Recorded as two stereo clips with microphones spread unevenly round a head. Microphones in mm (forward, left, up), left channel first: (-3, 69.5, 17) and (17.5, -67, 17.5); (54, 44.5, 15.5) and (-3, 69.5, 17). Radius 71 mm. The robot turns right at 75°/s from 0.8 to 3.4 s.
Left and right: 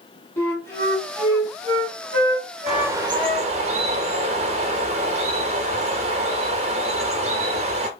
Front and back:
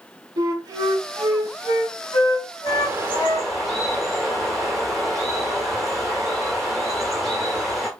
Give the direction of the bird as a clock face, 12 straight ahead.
6 o'clock.